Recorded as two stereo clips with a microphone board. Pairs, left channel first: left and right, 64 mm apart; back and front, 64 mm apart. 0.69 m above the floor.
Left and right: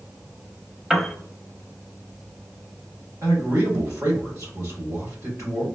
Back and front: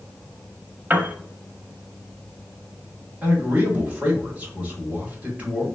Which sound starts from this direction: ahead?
A piano, at 0.9 s.